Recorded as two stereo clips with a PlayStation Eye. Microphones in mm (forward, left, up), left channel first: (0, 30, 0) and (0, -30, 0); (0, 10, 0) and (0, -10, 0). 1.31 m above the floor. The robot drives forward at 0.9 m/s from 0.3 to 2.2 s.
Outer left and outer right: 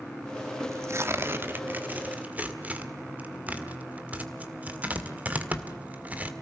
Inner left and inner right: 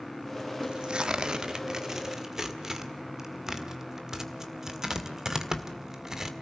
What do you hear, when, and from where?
0.6 s tearing paper: 50° right (ahead or behind), 1.0 m; by 6.3 s 25° right (ahead or behind), 1.9 m